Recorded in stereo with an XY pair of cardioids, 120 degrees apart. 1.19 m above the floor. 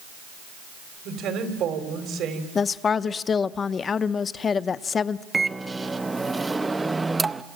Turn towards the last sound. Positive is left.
turn(degrees=-15)